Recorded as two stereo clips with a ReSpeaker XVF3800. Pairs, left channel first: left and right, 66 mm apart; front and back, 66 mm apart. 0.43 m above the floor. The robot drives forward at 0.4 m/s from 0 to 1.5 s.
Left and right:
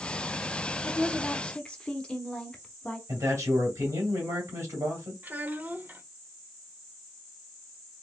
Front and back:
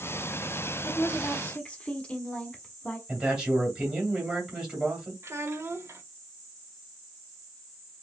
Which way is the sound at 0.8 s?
20° left.